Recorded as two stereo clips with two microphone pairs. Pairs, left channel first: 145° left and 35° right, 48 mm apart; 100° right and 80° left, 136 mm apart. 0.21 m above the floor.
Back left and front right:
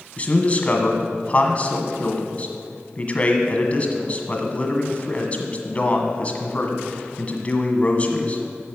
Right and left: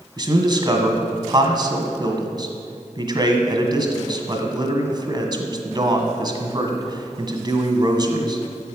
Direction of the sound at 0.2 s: 110° left.